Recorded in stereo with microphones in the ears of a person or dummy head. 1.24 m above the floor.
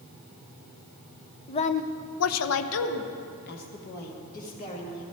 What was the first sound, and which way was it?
A woman speaking, 25° left (ahead or behind).